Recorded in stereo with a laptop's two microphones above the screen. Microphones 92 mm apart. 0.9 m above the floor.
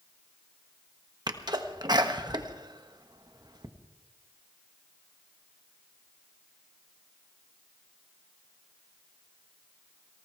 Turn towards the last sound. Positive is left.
turn(degrees=-50)  # may be behind; listen again after turning